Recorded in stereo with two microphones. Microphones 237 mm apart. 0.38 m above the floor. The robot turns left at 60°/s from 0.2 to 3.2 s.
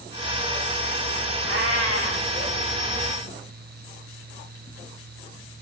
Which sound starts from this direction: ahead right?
A cat meowing, at 1.4 s.